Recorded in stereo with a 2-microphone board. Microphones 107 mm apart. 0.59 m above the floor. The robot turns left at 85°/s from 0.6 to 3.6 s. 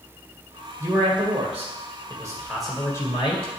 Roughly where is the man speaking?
Ahead right.